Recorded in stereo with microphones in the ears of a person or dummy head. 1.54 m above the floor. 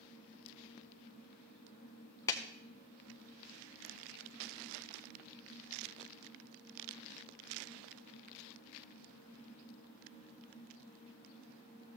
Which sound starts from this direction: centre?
A clap, at 2.3 s.